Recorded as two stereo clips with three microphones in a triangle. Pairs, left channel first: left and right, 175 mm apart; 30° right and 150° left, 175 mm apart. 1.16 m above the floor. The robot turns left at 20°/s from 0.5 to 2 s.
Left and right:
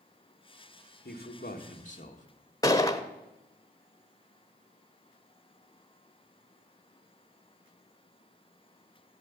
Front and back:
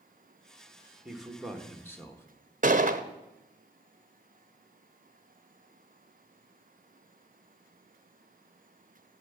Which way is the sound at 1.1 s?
65° left.